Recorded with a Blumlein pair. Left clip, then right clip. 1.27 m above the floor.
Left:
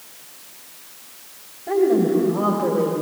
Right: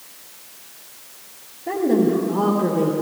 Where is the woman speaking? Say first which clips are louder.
Left 1 dB; 45° right, 3 m; by 2.9 s 30° right, 1.5 m.